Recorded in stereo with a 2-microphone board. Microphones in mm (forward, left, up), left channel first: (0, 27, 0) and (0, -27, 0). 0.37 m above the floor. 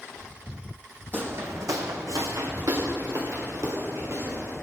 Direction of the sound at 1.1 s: 40° right (ahead or behind).